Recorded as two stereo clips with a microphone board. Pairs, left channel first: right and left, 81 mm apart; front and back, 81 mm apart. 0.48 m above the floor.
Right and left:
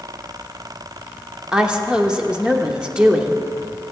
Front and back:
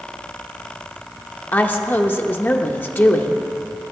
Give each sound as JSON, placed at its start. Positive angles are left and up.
{"t": 1.5, "sound": "a woman speaking", "azimuth_deg": 25, "distance_m": 1.0}